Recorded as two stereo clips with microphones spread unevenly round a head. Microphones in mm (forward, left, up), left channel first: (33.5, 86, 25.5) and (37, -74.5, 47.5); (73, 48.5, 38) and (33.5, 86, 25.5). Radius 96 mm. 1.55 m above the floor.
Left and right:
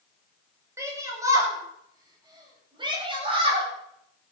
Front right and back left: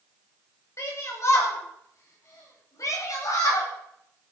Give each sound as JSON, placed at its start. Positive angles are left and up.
{"t": 0.8, "sound": "a shout", "azimuth_deg": -15, "distance_m": 9.0}